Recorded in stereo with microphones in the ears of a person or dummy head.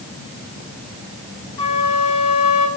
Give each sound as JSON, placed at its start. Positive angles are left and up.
{"t": 1.6, "sound": "a flute", "side_deg": 30, "distance_m": 3.0}